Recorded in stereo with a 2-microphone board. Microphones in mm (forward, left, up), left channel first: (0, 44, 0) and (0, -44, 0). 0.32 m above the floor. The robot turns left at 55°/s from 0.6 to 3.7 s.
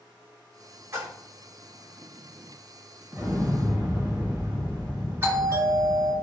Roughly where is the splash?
Right.